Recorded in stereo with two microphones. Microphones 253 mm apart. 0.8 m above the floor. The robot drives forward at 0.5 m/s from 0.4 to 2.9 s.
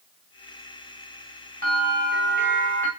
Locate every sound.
1.6 s a bell: 35° right (ahead or behind), 1.6 m; by 2.9 s 50° right (ahead or behind), 1.2 m